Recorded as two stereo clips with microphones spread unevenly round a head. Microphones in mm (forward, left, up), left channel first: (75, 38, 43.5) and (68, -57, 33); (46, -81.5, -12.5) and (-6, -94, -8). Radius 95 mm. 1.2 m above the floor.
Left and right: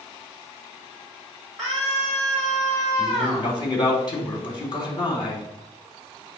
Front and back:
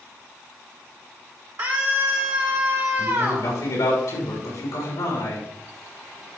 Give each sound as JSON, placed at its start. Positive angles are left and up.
{"t": 1.6, "sound": "a scream", "azimuth_deg": 175, "distance_m": 3.0}
{"t": 3.0, "sound": "a man speaking", "azimuth_deg": 45, "distance_m": 3.5}